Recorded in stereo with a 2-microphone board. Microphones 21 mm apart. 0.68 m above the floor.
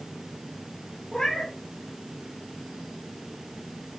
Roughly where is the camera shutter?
I don't hear a camera shutter.